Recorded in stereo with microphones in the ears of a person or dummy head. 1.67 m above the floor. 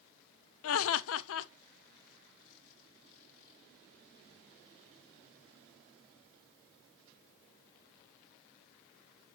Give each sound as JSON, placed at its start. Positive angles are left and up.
{"t": 0.6, "sound": "laughter", "side_deg": 75, "distance_m": 0.7}